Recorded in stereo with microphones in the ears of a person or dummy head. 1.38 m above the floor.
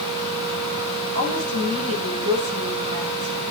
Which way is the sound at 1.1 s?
85° right.